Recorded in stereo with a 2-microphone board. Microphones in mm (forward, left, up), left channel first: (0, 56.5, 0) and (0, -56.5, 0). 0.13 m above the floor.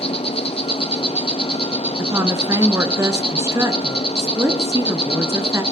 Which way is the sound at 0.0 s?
60° left (ahead or behind).